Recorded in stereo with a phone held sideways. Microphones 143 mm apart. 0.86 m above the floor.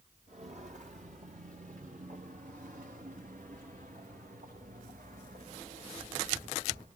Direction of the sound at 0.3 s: 60° right (ahead or behind).